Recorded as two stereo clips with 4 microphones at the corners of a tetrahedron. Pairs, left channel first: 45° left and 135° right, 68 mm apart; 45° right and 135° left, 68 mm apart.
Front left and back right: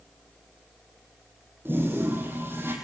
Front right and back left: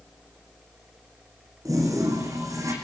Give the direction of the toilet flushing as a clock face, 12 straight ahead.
6 o'clock.